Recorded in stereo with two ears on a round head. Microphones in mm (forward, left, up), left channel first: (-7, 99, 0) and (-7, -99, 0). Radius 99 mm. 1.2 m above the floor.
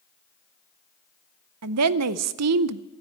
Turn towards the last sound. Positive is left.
turn(degrees=-80)